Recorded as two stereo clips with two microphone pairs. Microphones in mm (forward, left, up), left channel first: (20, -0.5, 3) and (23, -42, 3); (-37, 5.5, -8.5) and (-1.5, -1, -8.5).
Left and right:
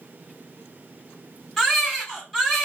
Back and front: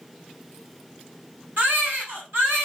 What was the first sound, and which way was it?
A baby crying, 10° left.